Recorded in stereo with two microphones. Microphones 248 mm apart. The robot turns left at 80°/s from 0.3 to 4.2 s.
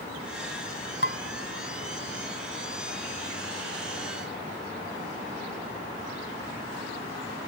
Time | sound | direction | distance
1.0 | dishes clattering | 45° left (ahead or behind) | ?